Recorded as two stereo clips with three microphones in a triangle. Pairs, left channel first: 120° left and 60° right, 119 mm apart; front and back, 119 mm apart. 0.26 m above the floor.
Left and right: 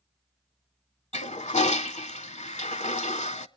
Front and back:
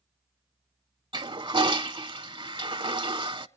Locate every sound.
1.1 s a toilet flushing: 130° left, 0.5 m